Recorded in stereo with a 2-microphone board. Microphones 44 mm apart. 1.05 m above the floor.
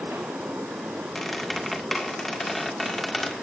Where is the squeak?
5° left (ahead or behind), 1.9 m.